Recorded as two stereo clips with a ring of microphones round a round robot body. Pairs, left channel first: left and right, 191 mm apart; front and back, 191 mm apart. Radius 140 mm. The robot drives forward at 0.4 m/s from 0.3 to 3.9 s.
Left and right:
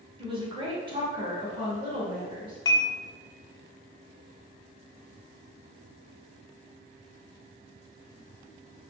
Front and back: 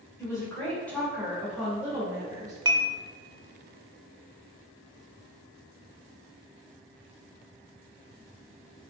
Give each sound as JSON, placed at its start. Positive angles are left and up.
{"t": 0.2, "sound": "a woman speaking", "azimuth_deg": -60, "distance_m": 1.6}
{"t": 2.6, "sound": "dishes clattering", "azimuth_deg": 135, "distance_m": 0.7}